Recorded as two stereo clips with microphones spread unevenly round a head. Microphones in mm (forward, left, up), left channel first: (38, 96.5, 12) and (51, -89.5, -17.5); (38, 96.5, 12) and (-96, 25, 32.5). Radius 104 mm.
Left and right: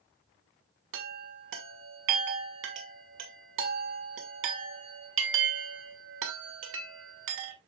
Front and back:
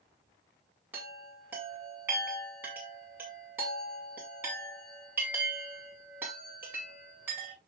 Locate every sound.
0.9 s a chime: 70° right, 2 m